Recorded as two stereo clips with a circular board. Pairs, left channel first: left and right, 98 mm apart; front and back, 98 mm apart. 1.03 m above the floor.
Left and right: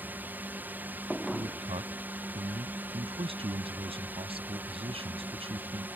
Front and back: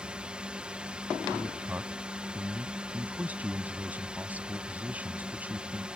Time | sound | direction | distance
0.0 | a drone | 120° right | ?
1.3 | a man speaking | 105° right | ?